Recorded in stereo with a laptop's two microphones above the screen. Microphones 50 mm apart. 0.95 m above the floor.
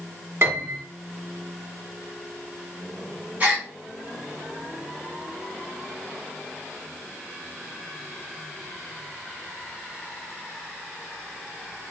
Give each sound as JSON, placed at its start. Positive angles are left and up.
{"t": 0.4, "sound": "a piano", "side_deg": -50, "distance_m": 1.2}
{"t": 3.4, "sound": "a gasp", "side_deg": -30, "distance_m": 1.0}